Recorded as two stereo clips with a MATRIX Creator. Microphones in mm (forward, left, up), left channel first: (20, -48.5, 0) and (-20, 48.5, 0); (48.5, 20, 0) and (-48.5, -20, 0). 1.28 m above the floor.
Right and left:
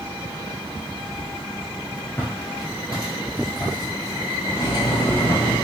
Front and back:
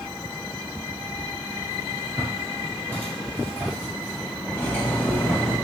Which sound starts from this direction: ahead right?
Cutlery clinking, at 4.5 s.